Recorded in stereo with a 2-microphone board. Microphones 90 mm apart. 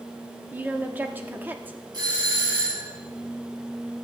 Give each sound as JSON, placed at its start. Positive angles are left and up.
{"t": 0.5, "sound": "a woman speaking", "side_deg": -20, "distance_m": 1.1}
{"t": 1.9, "sound": "a doorbell", "side_deg": -50, "distance_m": 7.0}